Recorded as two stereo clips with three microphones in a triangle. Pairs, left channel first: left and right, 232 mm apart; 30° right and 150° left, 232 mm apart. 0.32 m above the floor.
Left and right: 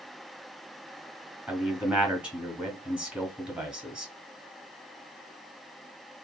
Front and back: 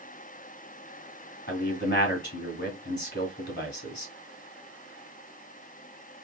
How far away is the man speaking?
About 1.8 m.